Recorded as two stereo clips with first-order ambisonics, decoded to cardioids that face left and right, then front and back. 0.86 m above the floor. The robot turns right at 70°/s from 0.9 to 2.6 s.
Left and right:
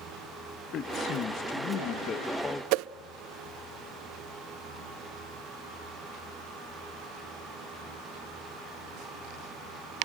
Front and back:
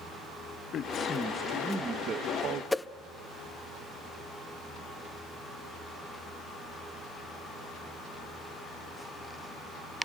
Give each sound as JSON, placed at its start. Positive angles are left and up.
{"t": 0.7, "sound": "a man speaking", "azimuth_deg": 50, "distance_m": 1.0}
{"t": 2.7, "sound": "a whoosh", "azimuth_deg": -85, "distance_m": 0.5}